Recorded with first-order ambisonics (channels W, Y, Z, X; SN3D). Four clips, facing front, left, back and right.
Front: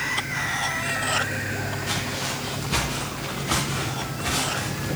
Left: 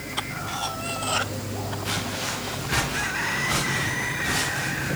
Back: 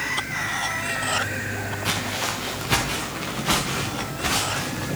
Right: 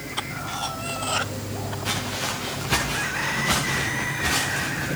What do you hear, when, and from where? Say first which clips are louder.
1.9 s footsteps: right 2 dB, back 4 dB; 170° right, 5 m; by 4.9 s 145° right, 6.5 m